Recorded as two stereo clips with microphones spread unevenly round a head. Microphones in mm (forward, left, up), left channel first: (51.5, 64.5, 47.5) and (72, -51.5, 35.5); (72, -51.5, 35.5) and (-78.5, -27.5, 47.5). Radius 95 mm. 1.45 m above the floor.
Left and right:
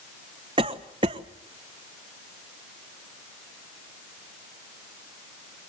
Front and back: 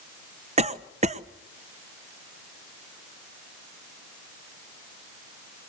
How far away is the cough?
About 1.0 m.